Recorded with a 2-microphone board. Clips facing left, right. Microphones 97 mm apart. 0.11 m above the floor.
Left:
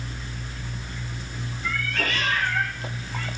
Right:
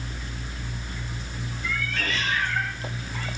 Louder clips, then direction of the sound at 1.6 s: Left 2 dB; 55° left (ahead or behind).